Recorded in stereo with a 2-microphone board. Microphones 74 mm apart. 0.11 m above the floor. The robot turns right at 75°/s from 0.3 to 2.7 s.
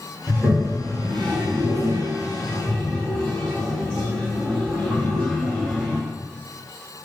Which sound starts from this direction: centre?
A toilet flushing, at 0.3 s.